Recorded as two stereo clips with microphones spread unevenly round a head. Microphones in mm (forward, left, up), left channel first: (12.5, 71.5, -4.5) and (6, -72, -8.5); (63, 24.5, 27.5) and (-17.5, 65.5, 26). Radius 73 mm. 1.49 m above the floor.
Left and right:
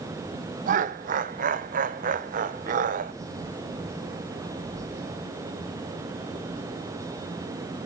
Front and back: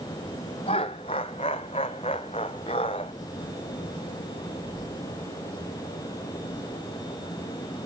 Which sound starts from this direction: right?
Laughter, at 0.7 s.